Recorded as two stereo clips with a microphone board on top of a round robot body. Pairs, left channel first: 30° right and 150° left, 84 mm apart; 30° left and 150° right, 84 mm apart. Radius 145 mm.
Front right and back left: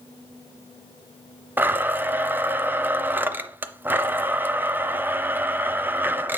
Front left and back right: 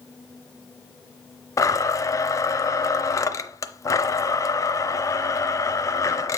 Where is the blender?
80° left, 0.8 m.